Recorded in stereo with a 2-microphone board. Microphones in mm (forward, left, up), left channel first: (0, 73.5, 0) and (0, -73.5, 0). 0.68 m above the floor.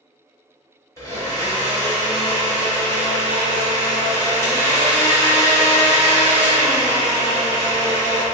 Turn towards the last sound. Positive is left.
turn(degrees=25)  # may be behind; listen again after turning